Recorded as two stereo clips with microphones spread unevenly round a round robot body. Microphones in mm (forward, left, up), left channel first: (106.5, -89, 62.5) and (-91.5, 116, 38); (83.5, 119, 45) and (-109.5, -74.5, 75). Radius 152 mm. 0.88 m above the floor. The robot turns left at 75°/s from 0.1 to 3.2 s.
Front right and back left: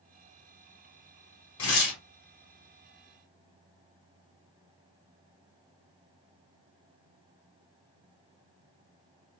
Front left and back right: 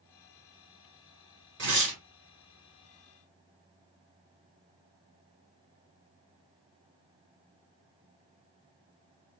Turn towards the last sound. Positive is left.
turn(degrees=155)